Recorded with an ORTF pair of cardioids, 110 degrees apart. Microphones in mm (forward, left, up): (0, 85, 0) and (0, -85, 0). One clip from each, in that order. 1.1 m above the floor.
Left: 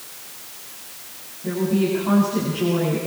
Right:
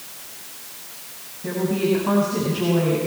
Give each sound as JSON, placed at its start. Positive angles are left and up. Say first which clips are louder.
{"t": 1.4, "sound": "a woman speaking", "louder": "even", "azimuth_deg": -20, "distance_m": 8.0}